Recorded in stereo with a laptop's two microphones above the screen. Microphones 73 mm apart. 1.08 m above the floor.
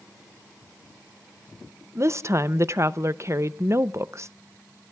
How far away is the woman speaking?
About 0.6 m.